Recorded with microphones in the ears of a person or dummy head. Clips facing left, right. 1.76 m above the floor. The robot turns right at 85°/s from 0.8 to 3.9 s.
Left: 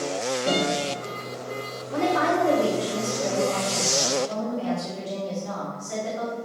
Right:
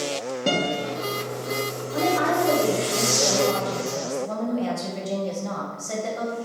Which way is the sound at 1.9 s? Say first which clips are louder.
Even; 70° left.